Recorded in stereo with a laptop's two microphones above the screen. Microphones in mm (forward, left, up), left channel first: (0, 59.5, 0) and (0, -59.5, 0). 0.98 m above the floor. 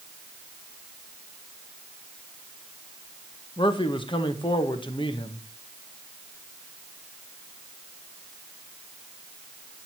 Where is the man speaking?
45° left (ahead or behind), 0.9 m.